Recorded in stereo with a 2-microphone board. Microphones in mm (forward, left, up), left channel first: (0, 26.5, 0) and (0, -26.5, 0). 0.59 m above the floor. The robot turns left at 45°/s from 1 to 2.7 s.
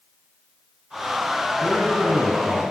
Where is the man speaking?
35° right, 5.5 m; by 2.6 s 80° right, 5.5 m.